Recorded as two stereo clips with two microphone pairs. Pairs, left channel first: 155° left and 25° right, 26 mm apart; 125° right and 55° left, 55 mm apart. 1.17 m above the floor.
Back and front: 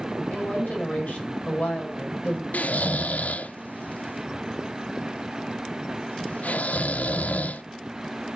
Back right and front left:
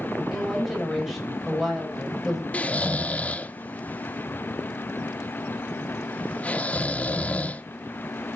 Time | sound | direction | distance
0.3 | a woman speaking | 140° left | 5.5 m
2.5 | snoring | 170° left | 0.6 m